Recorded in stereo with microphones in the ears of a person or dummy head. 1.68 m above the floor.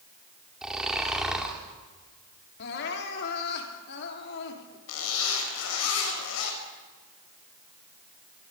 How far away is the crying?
About 3.5 m.